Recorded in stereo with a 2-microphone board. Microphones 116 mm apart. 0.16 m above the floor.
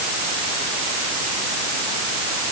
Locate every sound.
Only background noise.